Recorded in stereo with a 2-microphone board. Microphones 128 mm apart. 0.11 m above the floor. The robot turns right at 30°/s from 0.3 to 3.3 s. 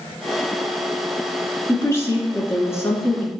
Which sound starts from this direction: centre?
A woman speaking, at 1.7 s.